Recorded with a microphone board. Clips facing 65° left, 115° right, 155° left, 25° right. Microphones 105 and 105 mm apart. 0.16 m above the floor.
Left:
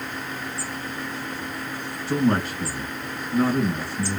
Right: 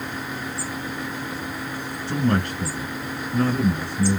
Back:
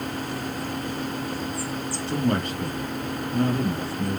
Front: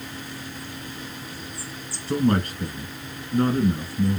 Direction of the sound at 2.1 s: 5° right.